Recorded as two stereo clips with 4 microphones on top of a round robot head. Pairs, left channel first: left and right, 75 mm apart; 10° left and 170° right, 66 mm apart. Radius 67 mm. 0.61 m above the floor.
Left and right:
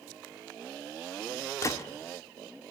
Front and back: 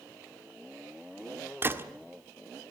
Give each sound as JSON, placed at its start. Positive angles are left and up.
{"t": 1.6, "sound": "a gunshot", "azimuth_deg": 135, "distance_m": 1.3}